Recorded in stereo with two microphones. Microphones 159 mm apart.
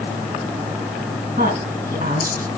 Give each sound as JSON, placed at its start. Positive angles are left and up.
{"t": 1.4, "sound": "a woman speaking", "side_deg": -65, "distance_m": 3.0}